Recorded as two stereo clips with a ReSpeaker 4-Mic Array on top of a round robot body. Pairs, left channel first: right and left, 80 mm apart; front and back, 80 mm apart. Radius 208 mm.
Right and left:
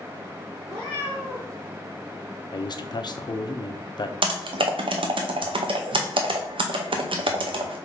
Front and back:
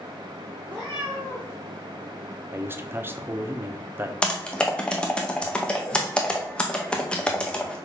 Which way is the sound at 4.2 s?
80° left.